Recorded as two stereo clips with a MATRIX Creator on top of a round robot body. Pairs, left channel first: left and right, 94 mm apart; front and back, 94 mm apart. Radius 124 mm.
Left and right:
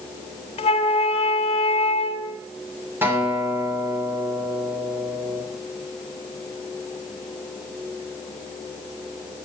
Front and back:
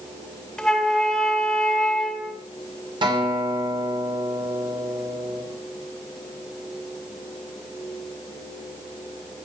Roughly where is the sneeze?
I don't hear a sneeze.